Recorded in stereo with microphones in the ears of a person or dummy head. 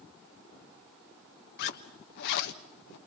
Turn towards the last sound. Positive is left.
turn(degrees=60)  # may be behind; listen again after turning